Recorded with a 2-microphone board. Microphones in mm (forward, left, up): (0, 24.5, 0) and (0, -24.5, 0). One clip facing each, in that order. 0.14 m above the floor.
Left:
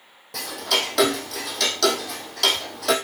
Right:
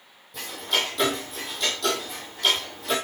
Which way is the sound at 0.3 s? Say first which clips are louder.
Left 2 dB; 75° left (ahead or behind).